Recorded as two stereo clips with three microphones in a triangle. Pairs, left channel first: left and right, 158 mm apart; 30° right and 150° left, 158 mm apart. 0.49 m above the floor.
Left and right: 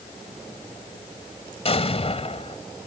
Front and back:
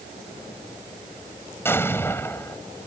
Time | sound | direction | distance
1.6 | an explosion | 45° left | ?